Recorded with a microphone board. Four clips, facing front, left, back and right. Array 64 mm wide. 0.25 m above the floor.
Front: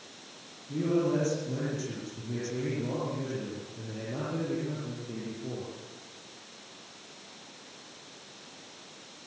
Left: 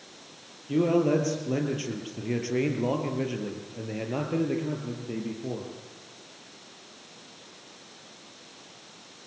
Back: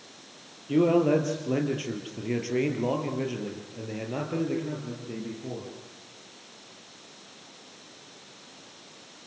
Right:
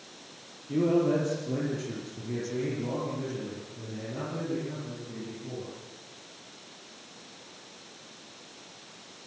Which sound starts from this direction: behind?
A man speaking, at 0.7 s.